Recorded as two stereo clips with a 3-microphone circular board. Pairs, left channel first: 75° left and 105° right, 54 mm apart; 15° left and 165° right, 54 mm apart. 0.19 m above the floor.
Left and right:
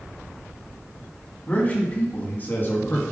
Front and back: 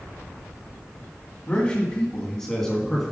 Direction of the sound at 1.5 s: 60° left.